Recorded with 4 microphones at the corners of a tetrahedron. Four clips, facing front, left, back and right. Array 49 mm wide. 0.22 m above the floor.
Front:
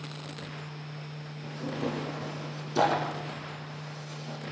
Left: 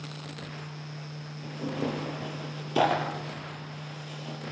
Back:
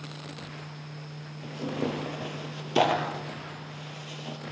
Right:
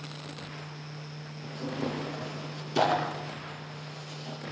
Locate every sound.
1.4 s tearing paper: 160° left, 5.5 m